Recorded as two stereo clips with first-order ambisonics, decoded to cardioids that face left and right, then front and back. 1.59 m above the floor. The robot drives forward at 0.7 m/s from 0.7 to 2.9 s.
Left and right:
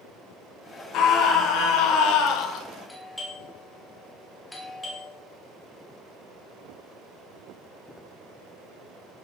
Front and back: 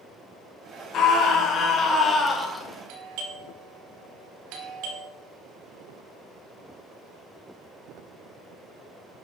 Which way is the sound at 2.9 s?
175° left.